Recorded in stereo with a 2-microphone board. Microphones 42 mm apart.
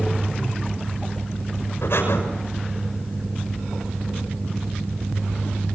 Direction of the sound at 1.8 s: 70° left (ahead or behind).